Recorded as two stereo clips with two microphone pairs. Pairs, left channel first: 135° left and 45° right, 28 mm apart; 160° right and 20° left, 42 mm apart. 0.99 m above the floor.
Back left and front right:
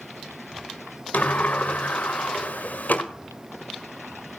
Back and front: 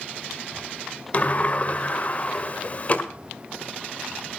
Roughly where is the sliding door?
Behind left.